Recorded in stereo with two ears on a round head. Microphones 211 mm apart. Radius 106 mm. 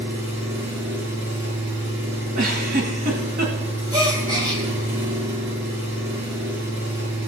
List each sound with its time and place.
0.0 s an engine running: 55° right (ahead or behind), 4.5 m
2.4 s a giggle: 40° right (ahead or behind), 2 m
3.9 s a gasp: 15° right (ahead or behind), 2.0 m